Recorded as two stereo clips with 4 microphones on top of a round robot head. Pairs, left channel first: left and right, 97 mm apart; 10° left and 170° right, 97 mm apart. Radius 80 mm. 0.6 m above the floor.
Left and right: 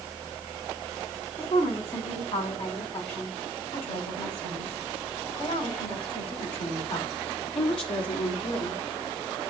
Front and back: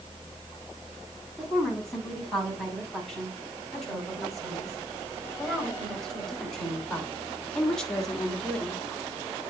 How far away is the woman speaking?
About 6 m.